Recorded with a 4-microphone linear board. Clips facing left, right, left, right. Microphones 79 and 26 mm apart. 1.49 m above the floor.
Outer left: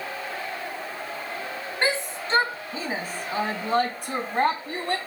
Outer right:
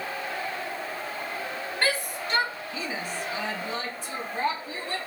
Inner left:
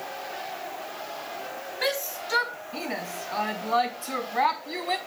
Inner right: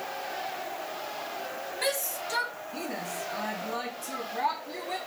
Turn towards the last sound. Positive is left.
turn(degrees=65)  # may be behind; listen again after turning